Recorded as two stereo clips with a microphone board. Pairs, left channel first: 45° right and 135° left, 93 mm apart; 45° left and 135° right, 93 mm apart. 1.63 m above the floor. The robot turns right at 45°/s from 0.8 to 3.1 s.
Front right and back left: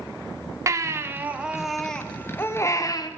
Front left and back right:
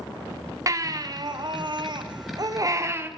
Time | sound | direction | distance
0.7 | a baby crying | straight behind | 0.7 m